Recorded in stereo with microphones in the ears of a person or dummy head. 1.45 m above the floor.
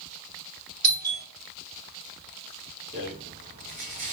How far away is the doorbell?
About 2.5 m.